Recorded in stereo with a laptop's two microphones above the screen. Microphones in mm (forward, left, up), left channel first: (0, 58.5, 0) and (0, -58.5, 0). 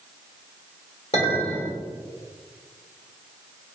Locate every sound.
1.1 s a clink: 65° left (ahead or behind), 1.6 m